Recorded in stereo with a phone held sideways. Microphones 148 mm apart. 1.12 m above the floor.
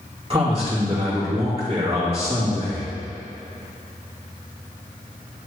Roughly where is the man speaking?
Right.